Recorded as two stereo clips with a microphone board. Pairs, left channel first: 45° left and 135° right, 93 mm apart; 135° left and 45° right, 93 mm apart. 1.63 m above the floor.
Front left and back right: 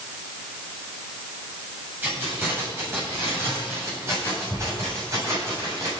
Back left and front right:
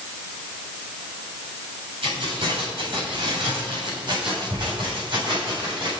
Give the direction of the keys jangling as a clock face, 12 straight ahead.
2 o'clock.